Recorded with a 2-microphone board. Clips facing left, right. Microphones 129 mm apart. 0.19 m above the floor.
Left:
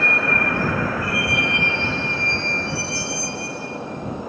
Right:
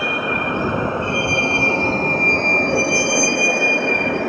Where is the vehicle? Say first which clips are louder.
Right 1 dB; 10° right (ahead or behind); by 4.3 s 85° right.